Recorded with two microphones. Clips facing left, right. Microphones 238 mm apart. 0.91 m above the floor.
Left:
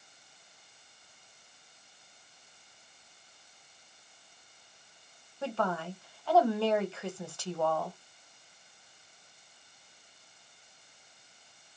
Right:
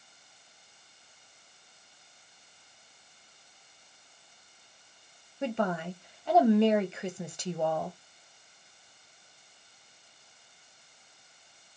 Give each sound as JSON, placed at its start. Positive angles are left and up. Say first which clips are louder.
{"t": 5.4, "sound": "a woman speaking", "louder": "right 3 dB", "side_deg": -20, "distance_m": 0.7}